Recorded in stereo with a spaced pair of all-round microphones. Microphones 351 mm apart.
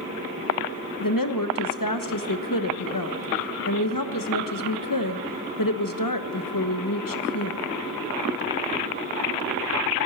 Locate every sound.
1.0 s a woman speaking: 65° left (ahead or behind), 1.2 m